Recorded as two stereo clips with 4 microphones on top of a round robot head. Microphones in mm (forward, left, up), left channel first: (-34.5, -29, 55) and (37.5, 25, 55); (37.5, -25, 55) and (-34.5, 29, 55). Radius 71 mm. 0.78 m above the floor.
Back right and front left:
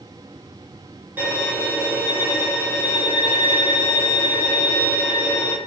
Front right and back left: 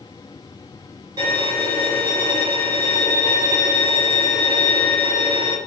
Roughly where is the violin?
Left.